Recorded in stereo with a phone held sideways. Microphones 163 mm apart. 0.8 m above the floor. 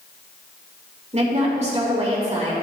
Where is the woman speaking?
45° right (ahead or behind), 3 m.